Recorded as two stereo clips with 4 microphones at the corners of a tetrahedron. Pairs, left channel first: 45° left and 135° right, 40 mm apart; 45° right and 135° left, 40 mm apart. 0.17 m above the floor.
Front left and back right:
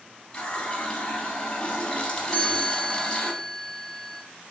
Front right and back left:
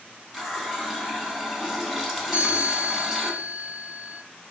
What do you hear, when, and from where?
0.3 s a running tap: 55° left, 0.7 m
2.3 s a chime: 120° left, 1.1 m